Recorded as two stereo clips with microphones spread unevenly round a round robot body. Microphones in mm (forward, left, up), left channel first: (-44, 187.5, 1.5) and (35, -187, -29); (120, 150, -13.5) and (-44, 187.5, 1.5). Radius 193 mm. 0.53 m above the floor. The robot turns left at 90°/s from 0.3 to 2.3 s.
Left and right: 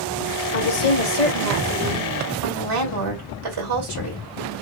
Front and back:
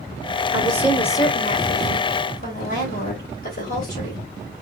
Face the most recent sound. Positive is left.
turn(degrees=-50)